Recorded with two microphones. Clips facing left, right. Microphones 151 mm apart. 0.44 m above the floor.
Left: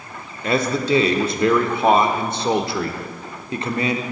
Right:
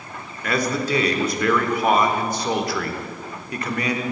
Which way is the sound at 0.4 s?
25° left (ahead or behind).